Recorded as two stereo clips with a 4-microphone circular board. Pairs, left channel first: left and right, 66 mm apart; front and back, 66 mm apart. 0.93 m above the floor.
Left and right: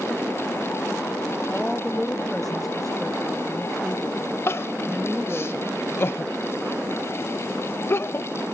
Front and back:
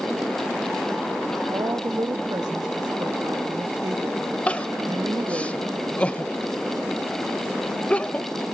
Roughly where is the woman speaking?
Behind.